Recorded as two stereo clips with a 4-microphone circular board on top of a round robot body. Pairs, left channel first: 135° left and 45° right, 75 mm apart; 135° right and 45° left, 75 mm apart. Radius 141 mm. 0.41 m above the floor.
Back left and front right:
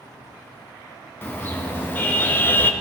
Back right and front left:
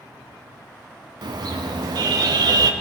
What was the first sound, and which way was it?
A car horn, 70° left.